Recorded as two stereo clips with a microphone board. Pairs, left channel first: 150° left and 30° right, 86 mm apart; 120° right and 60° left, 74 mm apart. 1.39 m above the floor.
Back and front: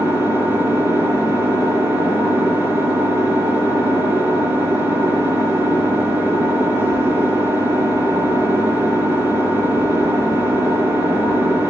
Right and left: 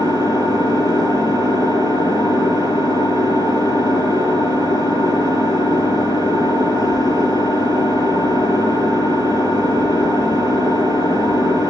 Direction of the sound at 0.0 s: 95° right.